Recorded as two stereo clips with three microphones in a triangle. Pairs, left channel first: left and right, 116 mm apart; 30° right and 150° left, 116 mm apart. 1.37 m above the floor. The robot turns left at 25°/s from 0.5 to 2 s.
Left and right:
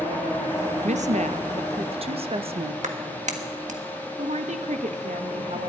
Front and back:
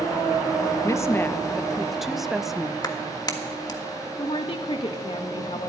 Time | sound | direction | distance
0.8 | a woman speaking | 95° right | 0.8 m
2.8 | a clap | 90° right | 1.5 m
4.2 | a woman speaking | 75° right | 1.4 m